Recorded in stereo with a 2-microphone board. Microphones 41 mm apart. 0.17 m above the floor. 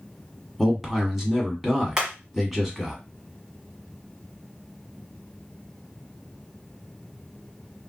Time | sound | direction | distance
0.6 | a man speaking | 5° right (ahead or behind) | 1.0 m
2.0 | hammering | 20° right (ahead or behind) | 1.2 m